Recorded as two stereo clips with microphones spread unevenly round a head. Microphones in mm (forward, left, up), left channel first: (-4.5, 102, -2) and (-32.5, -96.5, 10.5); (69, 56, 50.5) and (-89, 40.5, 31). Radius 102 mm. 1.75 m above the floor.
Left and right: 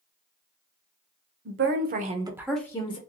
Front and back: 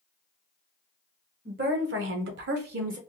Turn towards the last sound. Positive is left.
turn(degrees=145)